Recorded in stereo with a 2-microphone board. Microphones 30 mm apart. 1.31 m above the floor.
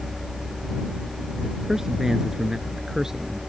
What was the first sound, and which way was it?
A man speaking, 15° right (ahead or behind).